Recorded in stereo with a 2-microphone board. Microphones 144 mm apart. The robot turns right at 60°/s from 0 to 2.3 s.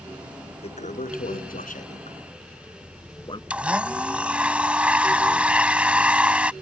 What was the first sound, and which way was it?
A toilet flushing, 45° left (ahead or behind).